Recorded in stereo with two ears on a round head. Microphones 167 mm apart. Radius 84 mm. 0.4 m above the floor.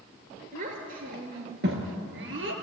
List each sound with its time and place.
0.5 s a child speaking: 45° right (ahead or behind), 5 m; by 2.5 s 70° right (ahead or behind), 5.5 m